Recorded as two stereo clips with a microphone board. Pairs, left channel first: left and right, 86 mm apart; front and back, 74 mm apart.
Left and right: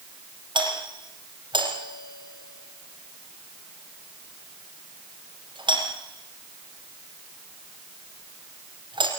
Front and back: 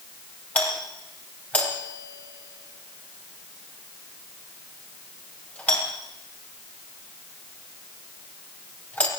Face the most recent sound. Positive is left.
turn(degrees=-70)